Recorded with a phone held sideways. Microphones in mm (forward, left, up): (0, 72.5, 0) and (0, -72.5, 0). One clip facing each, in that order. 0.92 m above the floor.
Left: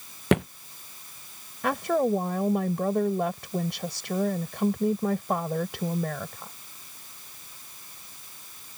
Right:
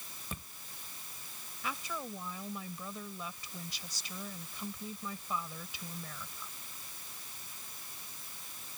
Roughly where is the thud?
Left.